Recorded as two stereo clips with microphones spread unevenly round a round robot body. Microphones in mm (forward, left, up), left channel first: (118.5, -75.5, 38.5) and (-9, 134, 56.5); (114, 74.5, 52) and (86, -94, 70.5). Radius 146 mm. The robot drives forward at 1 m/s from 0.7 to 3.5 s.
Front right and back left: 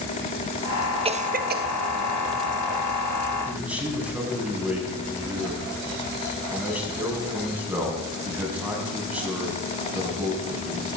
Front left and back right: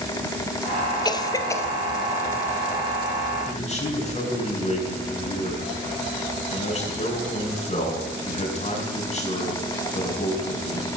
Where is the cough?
70° left, 0.9 m; by 1.7 s 140° left, 1.0 m.